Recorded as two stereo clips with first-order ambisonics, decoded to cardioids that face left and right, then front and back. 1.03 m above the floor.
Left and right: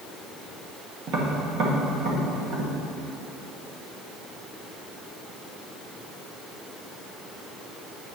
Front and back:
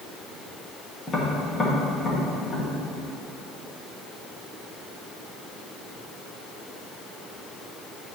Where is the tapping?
70° right, 1.1 m.